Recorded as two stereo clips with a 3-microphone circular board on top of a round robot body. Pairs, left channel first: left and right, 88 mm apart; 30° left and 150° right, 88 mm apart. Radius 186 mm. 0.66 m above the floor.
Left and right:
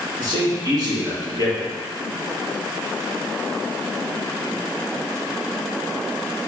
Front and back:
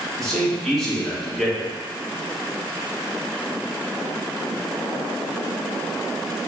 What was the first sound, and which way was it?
A man speaking, 55° right.